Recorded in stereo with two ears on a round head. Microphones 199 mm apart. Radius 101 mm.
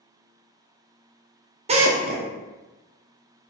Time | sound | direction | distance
1.7 | a drill | 30° right (ahead or behind) | 0.6 m